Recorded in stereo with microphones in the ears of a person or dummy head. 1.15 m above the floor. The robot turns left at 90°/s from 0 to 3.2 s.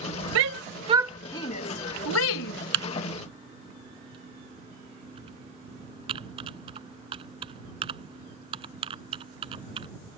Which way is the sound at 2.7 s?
65° right (ahead or behind).